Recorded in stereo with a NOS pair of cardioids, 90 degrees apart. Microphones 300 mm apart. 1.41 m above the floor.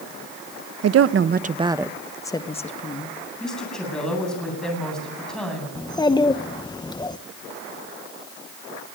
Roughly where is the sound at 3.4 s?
Ahead.